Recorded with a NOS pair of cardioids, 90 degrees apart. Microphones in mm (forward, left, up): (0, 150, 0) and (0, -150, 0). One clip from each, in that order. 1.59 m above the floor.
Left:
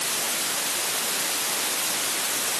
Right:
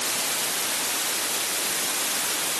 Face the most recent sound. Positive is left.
No sound to turn to.